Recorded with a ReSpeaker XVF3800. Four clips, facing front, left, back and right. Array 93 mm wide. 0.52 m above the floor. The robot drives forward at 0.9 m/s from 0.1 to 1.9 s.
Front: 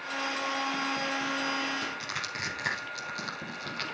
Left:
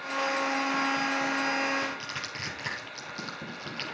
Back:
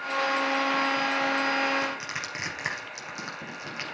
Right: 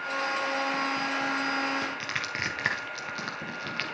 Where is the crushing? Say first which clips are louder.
Right 2 dB, back 3 dB; 110° right, 3.5 m.